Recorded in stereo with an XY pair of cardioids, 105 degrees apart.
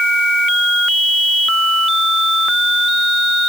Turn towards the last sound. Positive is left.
No sound to turn to.